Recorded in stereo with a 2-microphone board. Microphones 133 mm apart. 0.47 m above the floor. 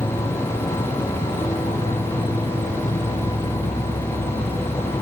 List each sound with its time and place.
0.0 s an insect: 60° left (ahead or behind)